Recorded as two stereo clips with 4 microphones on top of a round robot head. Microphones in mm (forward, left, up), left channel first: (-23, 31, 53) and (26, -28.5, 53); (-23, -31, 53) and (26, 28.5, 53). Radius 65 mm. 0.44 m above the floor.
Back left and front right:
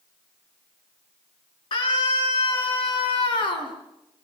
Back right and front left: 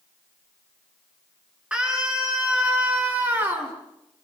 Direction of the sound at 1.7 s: 125° left.